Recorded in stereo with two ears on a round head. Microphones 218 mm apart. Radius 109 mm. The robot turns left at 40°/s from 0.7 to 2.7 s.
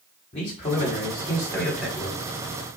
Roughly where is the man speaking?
Ahead left.